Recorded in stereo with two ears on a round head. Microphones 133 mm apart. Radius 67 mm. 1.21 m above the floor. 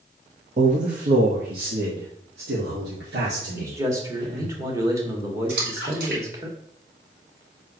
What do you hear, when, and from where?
0.6 s a man speaking: 50° right (ahead or behind), 1.1 m; by 4.5 s 85° right, 3.5 m
3.5 s a man speaking: 20° right (ahead or behind), 2.0 m
5.5 s a splash: 65° right (ahead or behind), 4 m